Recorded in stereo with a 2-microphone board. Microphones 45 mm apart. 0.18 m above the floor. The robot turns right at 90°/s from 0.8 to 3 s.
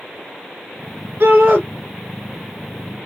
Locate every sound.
1.2 s a shout: 90° right, 2.5 m; by 1.6 s 55° right, 2.5 m